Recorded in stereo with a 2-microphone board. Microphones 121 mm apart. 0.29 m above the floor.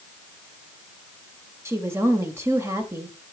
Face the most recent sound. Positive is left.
turn(degrees=-20)  # may be behind; listen again after turning